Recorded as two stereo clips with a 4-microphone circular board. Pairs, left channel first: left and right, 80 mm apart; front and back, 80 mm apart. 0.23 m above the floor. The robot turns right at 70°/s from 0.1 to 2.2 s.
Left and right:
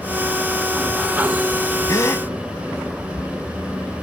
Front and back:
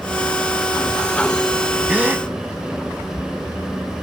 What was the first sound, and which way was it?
A gasp, 110° left.